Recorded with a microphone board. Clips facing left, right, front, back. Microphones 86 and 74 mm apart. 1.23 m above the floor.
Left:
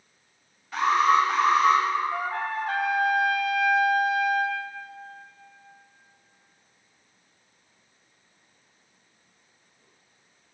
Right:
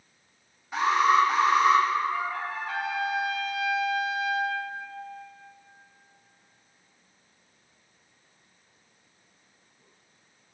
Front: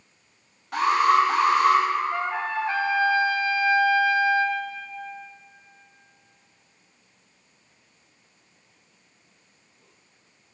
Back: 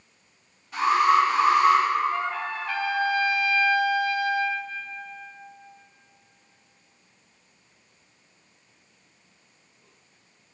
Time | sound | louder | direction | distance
0.7 | an alarm | left 1 dB, even | 15° right | 3.5 m
2.1 | a trumpet | left 2 dB, front 2 dB | 60° left | 0.7 m